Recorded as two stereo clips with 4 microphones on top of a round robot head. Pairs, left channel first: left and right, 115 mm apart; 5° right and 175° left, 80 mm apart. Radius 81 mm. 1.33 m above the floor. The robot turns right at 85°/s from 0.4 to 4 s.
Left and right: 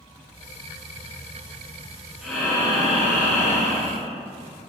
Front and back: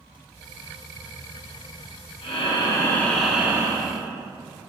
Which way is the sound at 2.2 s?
5° right.